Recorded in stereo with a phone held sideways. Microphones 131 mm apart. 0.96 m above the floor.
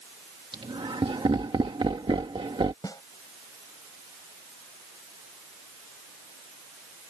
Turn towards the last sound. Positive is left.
turn(degrees=30)  # may be behind; listen again after turning